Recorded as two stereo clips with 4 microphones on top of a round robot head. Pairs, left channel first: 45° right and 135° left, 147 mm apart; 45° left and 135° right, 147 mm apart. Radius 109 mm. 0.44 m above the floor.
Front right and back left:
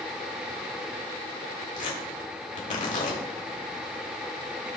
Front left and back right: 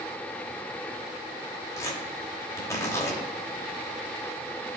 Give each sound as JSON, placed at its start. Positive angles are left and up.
{"t": 1.8, "sound": "tearing paper", "azimuth_deg": -20, "distance_m": 2.5}